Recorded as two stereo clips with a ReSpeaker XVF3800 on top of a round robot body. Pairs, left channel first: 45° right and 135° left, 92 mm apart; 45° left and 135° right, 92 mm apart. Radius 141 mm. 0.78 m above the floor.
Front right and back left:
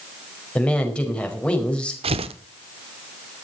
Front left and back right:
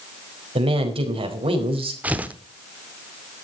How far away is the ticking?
I don't hear ticking.